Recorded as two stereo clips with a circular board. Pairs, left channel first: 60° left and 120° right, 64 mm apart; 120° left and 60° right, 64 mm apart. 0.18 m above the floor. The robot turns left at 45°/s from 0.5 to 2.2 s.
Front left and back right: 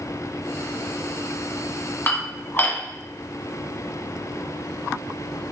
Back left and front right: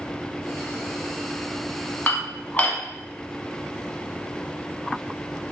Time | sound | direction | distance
2.1 | dishes clattering | 80° left | 1.0 m